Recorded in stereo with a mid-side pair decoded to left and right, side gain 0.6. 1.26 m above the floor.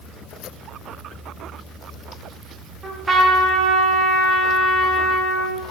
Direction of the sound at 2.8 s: 25° right.